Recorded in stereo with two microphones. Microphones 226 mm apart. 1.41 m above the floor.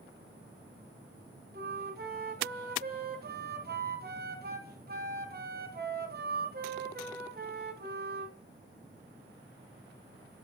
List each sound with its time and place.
1.5 s a flute: 45° right (ahead or behind), 0.6 m